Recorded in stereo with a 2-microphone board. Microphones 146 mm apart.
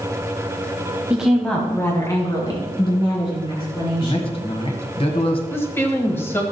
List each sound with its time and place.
1.1 s a woman speaking: 10° right (ahead or behind), 1.1 m; by 4.4 s 40° left (ahead or behind), 4.5 m
4.0 s a man speaking: 40° left (ahead or behind), 1.7 m
5.5 s a woman speaking: 15° left (ahead or behind), 1.5 m